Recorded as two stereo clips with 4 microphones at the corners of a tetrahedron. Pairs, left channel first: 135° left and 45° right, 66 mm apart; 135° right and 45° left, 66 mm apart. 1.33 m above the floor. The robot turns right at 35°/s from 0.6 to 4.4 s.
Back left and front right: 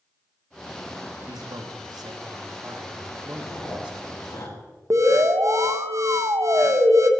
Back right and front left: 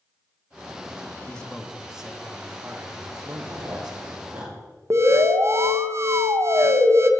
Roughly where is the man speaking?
Ahead right.